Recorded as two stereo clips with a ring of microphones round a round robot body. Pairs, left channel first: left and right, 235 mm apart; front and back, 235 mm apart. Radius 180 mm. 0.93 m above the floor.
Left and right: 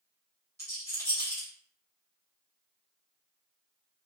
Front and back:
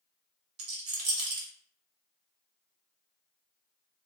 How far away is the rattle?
About 0.7 m.